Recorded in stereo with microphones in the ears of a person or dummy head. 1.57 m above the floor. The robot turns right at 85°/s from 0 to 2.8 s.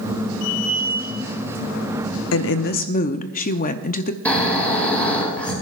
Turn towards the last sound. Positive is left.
turn(degrees=5)  # may be behind; listen again after turning